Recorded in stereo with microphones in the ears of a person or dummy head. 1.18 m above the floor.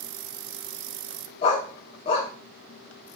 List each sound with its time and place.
1.4 s a dog barking: 25° left (ahead or behind), 0.7 m